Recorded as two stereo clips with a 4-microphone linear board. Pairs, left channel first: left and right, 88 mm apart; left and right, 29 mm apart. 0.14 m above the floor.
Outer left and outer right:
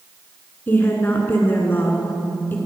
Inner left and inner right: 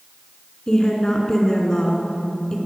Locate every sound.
0.7 s a woman speaking: 25° left (ahead or behind), 1.9 m